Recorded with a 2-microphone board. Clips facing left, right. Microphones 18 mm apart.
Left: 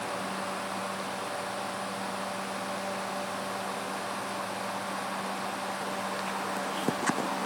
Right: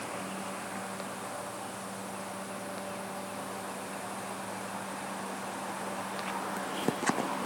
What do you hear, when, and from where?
Only background noise.